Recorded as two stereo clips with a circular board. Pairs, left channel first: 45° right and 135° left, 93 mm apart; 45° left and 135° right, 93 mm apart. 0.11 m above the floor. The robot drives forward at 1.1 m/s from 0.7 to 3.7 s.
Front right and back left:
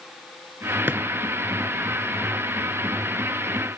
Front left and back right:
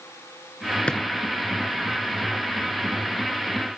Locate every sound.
0.9 s a drawer: 105° left, 0.6 m; by 1.0 s 135° left, 0.7 m